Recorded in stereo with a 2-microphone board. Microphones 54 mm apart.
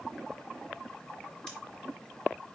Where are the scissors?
20° left (ahead or behind), 4 m.